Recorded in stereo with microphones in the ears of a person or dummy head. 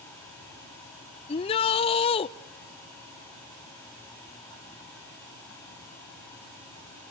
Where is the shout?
30° left (ahead or behind), 0.6 m.